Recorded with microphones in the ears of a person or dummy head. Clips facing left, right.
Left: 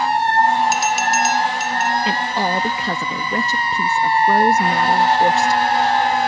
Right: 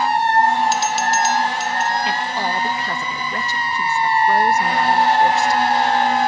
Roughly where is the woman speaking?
Left.